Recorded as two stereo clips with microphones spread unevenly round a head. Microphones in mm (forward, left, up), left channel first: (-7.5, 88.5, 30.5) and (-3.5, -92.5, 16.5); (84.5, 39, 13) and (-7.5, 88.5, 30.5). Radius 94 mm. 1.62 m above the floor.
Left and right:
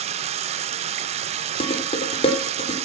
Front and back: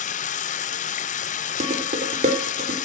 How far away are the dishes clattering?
About 3.5 m.